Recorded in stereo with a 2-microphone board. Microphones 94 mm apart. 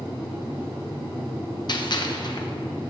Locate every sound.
1.7 s a gunshot: 50° left (ahead or behind), 1.0 m